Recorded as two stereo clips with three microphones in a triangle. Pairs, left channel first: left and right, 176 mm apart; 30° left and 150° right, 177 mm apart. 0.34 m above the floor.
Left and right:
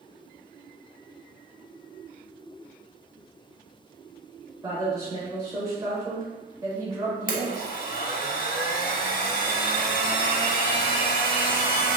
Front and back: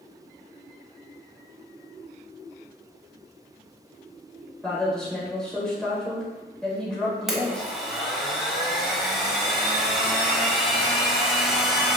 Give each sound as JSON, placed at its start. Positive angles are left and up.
{"t": 4.6, "sound": "a woman speaking", "azimuth_deg": -50, "distance_m": 0.9}
{"t": 7.3, "sound": "a blender", "azimuth_deg": 125, "distance_m": 0.5}